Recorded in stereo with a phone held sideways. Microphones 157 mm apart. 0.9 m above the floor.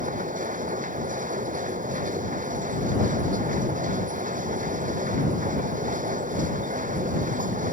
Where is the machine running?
55° right (ahead or behind).